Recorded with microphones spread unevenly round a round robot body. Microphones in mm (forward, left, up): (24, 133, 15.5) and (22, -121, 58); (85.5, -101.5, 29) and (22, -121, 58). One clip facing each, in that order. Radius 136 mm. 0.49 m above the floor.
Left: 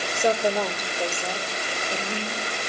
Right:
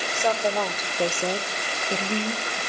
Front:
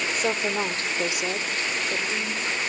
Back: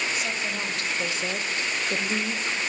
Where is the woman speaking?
30° left, 1.8 m; by 2.6 s 90° right, 2.5 m.